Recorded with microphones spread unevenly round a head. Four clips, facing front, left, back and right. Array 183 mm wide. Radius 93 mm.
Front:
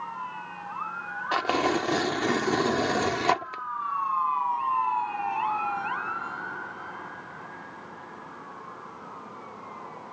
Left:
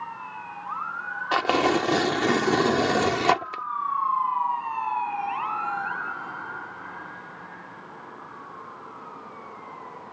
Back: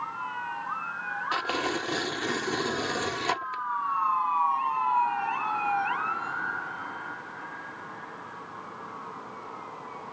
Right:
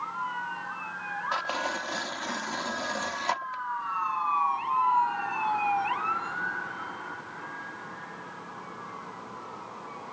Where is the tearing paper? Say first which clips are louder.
Left 11 dB, front 6 dB; 80° left.